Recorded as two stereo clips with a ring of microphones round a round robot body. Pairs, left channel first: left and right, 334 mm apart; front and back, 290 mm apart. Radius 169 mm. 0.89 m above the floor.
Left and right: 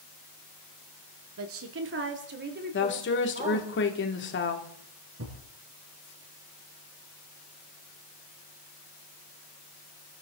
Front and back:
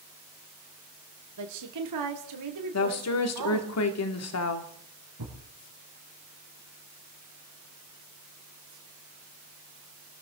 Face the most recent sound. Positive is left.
turn(degrees=-140)